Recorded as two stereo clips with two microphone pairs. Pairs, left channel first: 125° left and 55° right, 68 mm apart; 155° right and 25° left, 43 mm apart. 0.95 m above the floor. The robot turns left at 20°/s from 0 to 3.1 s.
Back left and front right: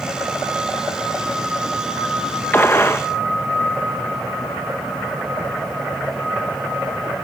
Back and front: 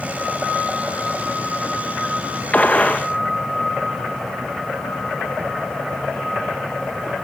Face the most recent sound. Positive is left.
turn(degrees=160)